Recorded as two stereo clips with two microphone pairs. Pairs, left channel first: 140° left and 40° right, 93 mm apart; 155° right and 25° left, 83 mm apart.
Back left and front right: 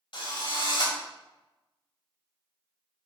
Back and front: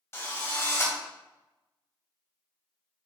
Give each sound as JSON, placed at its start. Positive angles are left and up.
{"t": 0.1, "sound": "a drill", "azimuth_deg": 150, "distance_m": 2.5}